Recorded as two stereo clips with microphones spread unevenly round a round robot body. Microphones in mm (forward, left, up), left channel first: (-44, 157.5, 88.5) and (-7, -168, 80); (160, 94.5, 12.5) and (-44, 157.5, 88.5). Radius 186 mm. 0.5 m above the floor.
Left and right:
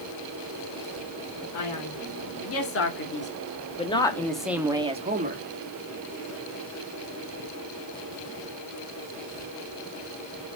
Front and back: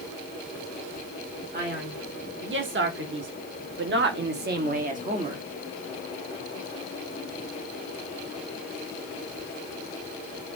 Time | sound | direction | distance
1.5 | a man speaking | 120° left | 2.5 m